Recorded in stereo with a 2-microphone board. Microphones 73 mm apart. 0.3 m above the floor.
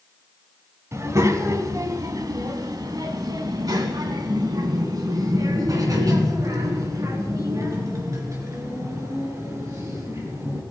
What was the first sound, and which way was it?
A child speaking, 45° right (ahead or behind).